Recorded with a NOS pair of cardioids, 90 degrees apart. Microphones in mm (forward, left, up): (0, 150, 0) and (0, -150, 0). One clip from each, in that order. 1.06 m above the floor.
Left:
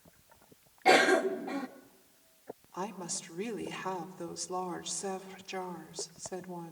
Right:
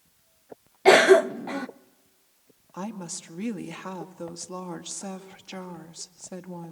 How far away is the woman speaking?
About 2 m.